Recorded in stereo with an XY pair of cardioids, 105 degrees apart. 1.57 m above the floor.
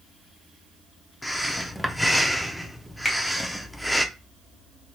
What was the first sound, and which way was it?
Breathing, 5° left.